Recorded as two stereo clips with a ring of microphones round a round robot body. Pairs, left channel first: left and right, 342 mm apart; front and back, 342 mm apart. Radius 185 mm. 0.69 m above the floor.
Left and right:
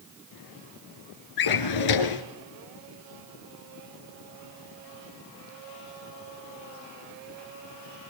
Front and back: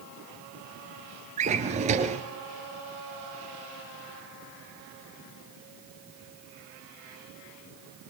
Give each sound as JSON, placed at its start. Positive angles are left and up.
{"t": 1.4, "sound": "a drawer", "azimuth_deg": 110, "distance_m": 2.5}